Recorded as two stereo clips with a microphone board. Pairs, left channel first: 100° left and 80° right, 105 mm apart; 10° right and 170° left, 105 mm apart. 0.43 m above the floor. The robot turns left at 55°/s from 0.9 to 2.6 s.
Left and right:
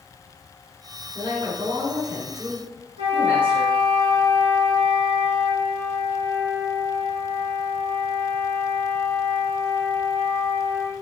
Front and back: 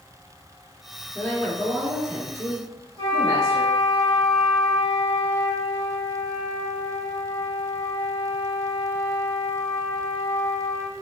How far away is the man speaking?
About 0.9 m.